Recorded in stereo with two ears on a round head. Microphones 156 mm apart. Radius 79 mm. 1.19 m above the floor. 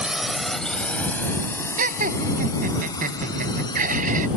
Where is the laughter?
50° right (ahead or behind).